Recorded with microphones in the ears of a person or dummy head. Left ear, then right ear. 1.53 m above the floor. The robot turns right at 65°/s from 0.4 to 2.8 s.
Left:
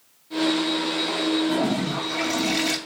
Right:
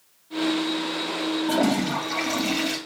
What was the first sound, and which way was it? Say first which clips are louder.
A toilet flushing: right 1 dB; 65° right.